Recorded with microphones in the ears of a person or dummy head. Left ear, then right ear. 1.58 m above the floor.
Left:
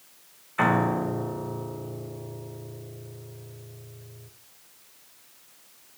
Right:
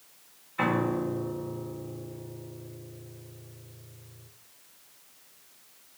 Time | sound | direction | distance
0.6 | a piano | 35° left (ahead or behind) | 1.3 m